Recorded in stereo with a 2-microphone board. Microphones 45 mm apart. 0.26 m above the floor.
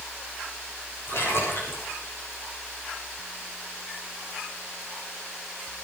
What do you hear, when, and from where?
1.1 s a splash: 60° left (ahead or behind), 9 m